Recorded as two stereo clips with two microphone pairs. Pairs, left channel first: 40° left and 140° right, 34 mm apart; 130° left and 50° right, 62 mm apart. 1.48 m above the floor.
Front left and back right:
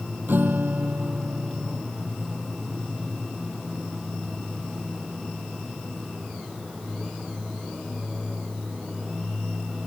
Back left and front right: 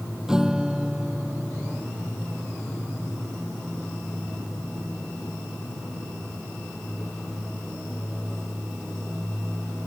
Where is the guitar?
130° right.